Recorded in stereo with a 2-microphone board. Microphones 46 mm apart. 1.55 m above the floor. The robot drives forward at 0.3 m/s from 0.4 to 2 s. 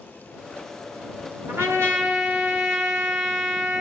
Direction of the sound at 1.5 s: 70° right (ahead or behind).